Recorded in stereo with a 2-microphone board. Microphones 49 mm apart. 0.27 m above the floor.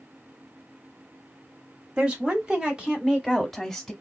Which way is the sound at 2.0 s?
20° right (ahead or behind).